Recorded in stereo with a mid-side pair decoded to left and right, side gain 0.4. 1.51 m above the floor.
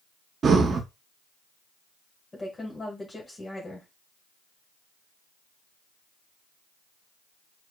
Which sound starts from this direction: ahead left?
A woman speaking, at 2.3 s.